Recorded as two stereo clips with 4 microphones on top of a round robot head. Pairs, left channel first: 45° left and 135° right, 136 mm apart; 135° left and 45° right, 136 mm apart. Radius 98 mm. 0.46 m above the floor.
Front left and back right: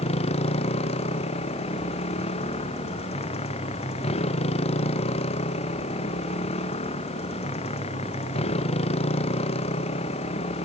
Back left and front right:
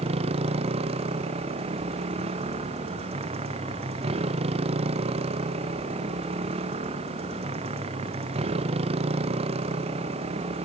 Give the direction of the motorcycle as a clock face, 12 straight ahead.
12 o'clock.